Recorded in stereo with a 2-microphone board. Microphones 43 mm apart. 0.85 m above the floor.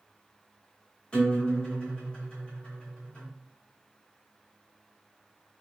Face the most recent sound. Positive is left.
turn(degrees=25)  # may be behind; listen again after turning